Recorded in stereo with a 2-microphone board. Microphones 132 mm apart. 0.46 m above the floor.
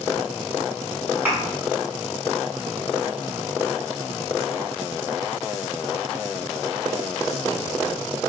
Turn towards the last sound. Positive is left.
turn(degrees=-15)  # may be behind; listen again after turning